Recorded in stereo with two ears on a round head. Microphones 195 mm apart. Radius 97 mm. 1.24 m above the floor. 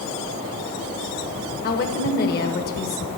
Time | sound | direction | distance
1.6 | a woman speaking | 45° left (ahead or behind) | 1.1 m